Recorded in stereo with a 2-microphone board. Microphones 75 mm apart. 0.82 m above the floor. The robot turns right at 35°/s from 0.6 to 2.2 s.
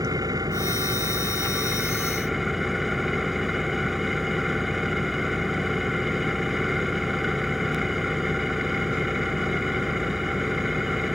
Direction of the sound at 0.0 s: 60° right.